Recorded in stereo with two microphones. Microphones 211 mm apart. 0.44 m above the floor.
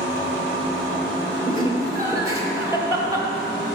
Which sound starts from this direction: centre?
Laughter, at 1.5 s.